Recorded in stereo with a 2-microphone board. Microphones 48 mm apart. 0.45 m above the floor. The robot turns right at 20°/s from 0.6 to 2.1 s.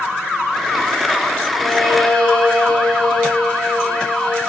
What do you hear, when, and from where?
1.6 s a violin: 5° left (ahead or behind), 7.5 m; by 4.5 s 15° left (ahead or behind), 7.5 m